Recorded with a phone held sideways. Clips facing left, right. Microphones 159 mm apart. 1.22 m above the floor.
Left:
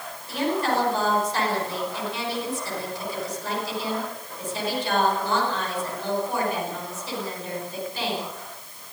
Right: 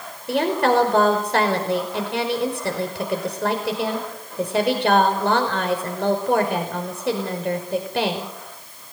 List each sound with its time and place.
0.3 s a woman speaking: 70° right (ahead or behind), 5.5 m